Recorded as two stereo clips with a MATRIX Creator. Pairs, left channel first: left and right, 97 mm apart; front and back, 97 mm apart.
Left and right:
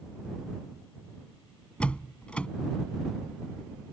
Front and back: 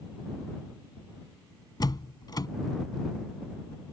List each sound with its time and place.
1.8 s a door slam: 15° left